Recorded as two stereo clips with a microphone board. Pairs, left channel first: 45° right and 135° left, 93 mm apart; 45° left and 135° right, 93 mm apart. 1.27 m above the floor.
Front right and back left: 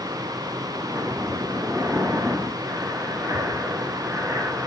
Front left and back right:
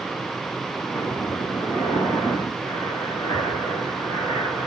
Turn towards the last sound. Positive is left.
turn(degrees=75)